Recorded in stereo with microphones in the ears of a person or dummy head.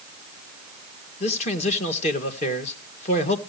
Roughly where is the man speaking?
Left.